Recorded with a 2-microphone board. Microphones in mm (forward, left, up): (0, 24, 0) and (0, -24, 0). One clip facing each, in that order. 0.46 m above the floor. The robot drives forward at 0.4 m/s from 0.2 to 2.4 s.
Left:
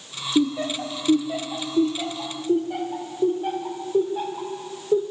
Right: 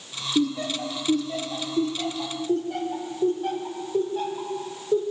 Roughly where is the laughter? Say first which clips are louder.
Left 3 dB; centre.